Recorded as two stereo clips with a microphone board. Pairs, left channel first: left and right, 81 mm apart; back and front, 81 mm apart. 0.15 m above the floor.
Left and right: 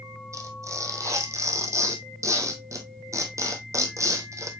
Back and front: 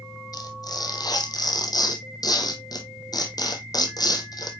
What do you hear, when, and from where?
0.3 s tearing paper: 140° right, 1.4 m